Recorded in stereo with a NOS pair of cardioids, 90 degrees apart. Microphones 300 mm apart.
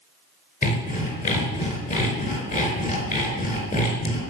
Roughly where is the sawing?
Ahead left.